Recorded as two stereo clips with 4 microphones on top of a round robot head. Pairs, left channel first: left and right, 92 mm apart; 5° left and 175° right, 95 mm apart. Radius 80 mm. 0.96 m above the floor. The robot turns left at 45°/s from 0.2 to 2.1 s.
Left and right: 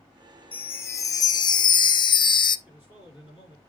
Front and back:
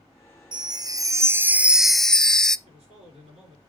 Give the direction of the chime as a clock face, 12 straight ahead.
7 o'clock.